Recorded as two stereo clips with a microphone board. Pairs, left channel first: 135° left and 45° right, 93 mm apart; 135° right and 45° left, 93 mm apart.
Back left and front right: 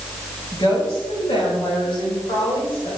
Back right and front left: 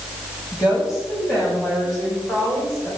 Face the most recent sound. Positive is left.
turn(degrees=170)